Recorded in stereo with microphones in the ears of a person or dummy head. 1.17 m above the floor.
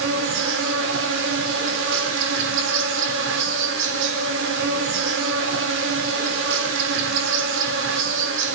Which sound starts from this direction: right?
An insect, at 0.0 s.